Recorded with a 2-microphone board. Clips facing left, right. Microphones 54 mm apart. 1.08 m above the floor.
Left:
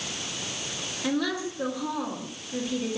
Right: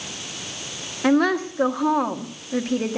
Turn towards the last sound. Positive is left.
turn(degrees=-55)  # may be behind; listen again after turning